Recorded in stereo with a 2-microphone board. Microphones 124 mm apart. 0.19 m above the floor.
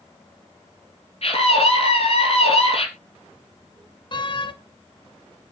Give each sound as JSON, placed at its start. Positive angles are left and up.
{"t": 1.2, "sound": "a scream", "side_deg": 60, "distance_m": 4.0}
{"t": 4.1, "sound": "a door slam", "side_deg": 40, "distance_m": 1.2}